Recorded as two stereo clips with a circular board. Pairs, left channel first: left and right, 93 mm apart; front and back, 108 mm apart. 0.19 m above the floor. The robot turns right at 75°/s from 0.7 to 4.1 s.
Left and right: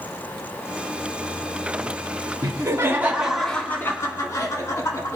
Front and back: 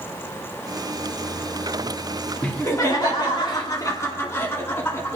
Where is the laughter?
70° right, 2 m; by 5.2 s 55° left, 2 m.